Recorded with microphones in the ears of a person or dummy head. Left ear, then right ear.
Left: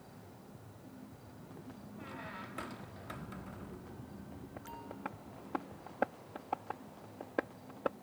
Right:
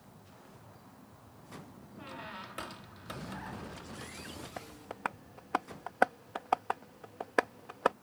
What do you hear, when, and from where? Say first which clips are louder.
2.0 s a squeak: right 3 dB; 15° right (ahead or behind)
4.6 s tapping: right 7 dB; 55° right (ahead or behind)